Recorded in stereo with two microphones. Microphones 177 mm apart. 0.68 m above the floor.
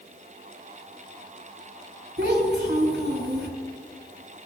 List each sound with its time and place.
2.2 s a child speaking: 75° right (ahead or behind), 3.5 m